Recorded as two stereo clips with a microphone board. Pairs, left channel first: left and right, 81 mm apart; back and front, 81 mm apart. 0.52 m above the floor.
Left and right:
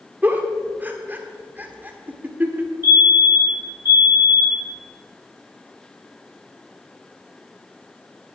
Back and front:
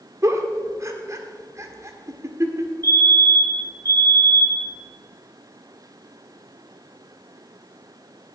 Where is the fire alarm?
125° left, 5.5 m.